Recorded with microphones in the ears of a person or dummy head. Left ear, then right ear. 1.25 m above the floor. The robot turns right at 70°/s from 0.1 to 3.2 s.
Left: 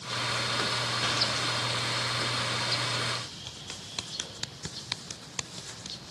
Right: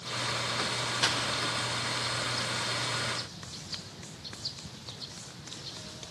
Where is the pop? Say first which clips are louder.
Right 4 dB; 45° right (ahead or behind), 2.5 m; by 1.2 s 30° right (ahead or behind), 2.5 m.